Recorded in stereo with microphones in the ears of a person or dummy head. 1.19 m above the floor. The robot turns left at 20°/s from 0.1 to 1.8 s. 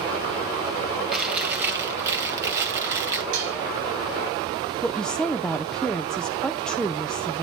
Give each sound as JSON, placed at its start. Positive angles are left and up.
{"t": 1.1, "sound": "chewing", "side_deg": -5, "distance_m": 2.5}
{"t": 3.3, "sound": "dishes clattering", "side_deg": -65, "distance_m": 5.0}
{"t": 4.8, "sound": "a woman speaking", "side_deg": 0, "distance_m": 0.5}